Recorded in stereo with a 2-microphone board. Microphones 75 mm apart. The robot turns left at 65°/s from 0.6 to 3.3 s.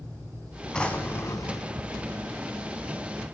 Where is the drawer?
170° left, 1.3 m; by 1.6 s 110° left, 1.3 m.